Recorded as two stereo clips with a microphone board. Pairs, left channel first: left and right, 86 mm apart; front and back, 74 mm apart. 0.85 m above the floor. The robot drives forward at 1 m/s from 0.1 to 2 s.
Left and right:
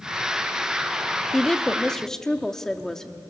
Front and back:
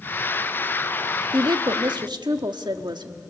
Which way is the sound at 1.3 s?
170° left.